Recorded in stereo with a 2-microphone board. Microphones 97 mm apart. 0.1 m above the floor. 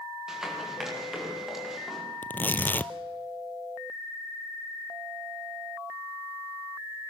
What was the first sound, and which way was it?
Running footsteps, 5° right (ahead or behind).